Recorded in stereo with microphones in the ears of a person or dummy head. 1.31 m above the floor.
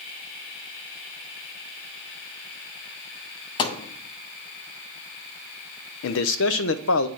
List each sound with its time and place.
3.6 s a thud: 25° left (ahead or behind), 0.8 m
6.0 s a man speaking: 70° left (ahead or behind), 0.6 m